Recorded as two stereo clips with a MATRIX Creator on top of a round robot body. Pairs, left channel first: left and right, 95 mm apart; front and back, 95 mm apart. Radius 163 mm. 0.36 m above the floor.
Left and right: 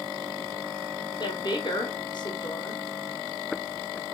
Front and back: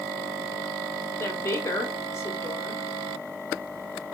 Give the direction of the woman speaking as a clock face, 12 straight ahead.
10 o'clock.